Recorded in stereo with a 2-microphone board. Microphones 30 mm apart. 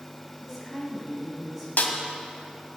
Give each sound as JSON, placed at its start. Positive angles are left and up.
{"t": 0.4, "sound": "a woman speaking", "side_deg": -5, "distance_m": 3.0}
{"t": 1.8, "sound": "a snare drum", "side_deg": 65, "distance_m": 2.0}